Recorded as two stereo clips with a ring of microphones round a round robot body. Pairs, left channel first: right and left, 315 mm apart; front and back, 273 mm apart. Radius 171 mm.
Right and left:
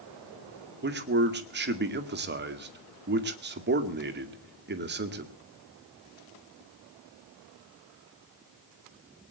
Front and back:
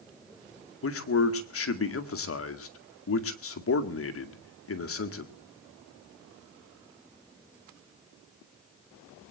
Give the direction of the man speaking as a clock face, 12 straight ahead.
11 o'clock.